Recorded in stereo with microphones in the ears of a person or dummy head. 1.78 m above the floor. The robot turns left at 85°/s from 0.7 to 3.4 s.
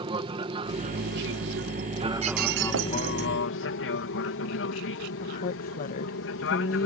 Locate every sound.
0.0 s an aircraft: 30° right (ahead or behind); by 6.9 s 65° left (ahead or behind)
2.2 s breaking glass: 35° right; by 3.3 s 130° right
5.2 s a woman speaking: 50° left (ahead or behind)